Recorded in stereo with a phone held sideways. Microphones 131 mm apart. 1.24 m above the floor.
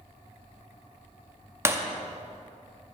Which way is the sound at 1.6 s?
20° right (ahead or behind).